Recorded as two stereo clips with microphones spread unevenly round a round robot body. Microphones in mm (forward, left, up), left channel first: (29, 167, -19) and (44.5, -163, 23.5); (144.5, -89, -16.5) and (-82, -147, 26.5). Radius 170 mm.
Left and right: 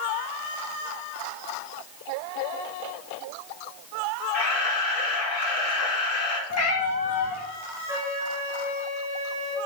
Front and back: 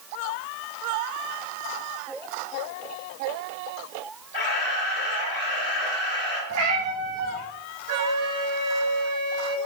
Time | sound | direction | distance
4.3 | a camera shutter | 60° left | 3.5 m
6.5 | a cat meowing | 140° left | 2 m
7.9 | a flute | 170° right | 5.5 m